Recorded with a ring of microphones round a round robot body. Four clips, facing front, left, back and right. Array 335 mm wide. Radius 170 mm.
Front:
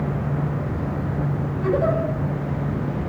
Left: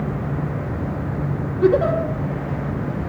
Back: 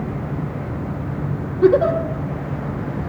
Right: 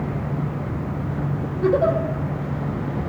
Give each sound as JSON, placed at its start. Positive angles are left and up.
{"t": 1.6, "sound": "a giggle", "azimuth_deg": 140, "distance_m": 4.5}